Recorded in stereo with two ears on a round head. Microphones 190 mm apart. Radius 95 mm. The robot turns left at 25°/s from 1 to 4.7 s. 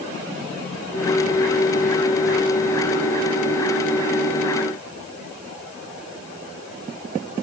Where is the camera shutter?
I don't hear a camera shutter.